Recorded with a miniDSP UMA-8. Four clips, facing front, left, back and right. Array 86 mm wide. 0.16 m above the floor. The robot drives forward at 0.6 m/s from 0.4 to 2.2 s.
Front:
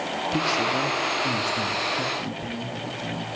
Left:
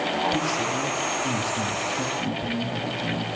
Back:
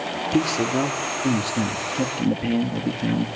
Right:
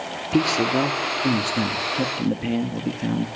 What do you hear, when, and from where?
0.3 s a man speaking: 110° right, 2.5 m; by 3.3 s 130° right, 3 m